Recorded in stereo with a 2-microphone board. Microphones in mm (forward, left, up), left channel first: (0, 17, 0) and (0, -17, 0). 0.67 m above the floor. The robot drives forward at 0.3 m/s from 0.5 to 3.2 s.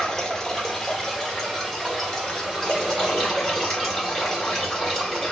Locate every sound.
0.0 s running water: 15° left (ahead or behind), 1.1 m; by 5.3 s 10° left (ahead or behind), 1.8 m